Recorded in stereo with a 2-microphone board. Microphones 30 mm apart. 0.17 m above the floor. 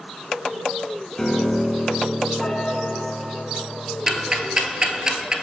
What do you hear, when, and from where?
1.2 s a piano: 20° left (ahead or behind), 0.9 m
4.1 s ticking: 25° right (ahead or behind), 0.6 m